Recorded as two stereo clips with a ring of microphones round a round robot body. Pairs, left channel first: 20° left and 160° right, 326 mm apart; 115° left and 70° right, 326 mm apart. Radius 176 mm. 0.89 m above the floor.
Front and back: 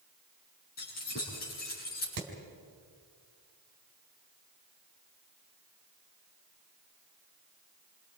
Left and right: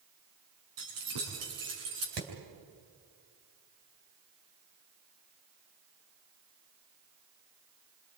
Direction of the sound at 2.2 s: 115° right.